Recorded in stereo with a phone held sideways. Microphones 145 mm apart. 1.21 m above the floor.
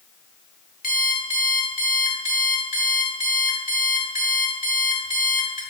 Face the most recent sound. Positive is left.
turn(degrees=70)  # may be behind; listen again after turning